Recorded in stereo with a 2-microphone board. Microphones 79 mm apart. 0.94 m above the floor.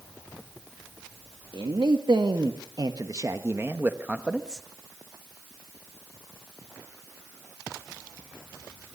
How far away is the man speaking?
About 1.4 m.